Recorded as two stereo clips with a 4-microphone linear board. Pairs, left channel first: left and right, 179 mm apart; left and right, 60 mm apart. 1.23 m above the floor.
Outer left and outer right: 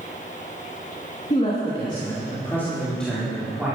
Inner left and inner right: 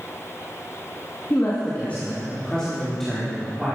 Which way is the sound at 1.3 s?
40° left (ahead or behind).